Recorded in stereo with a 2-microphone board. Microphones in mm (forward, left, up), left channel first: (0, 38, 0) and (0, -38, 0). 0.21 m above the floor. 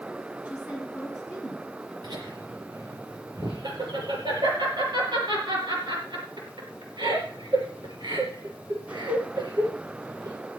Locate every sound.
0.5 s a woman speaking: 20° right (ahead or behind), 2 m; by 1.9 s 5° right (ahead or behind), 3 m
2.0 s laughter: 70° right (ahead or behind), 6 m